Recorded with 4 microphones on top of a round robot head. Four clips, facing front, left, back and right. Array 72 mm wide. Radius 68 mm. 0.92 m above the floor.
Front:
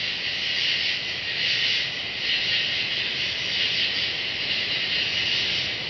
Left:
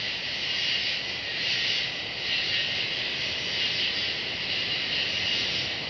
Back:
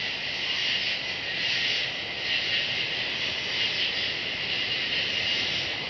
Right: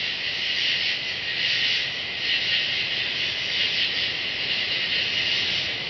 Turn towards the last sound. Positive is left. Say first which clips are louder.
# right 4 dB, front 2 dB
turn(degrees=-50)